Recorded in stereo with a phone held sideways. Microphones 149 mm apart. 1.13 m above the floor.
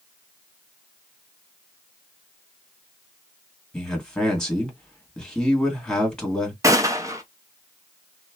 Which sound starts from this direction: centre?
A man speaking, at 3.7 s.